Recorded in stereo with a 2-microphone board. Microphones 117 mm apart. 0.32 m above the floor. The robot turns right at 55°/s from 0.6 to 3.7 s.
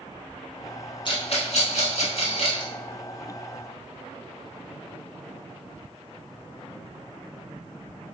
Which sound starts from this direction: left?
A rattle, at 1.1 s.